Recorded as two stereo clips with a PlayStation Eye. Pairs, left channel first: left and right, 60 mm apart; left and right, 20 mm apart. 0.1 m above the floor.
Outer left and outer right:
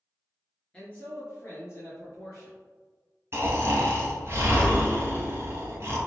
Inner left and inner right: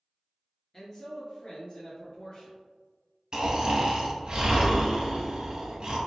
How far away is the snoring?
About 1.2 m.